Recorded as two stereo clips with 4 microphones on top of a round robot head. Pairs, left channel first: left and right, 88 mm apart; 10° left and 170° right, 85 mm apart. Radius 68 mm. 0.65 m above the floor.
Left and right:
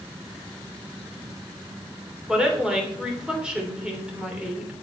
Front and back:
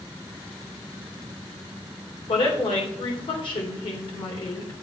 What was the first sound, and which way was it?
A woman speaking, 10° right.